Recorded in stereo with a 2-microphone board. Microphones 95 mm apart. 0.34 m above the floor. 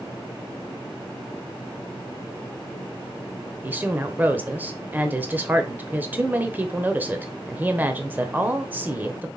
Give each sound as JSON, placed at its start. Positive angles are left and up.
{"t": 3.6, "sound": "a woman speaking", "side_deg": -20, "distance_m": 0.9}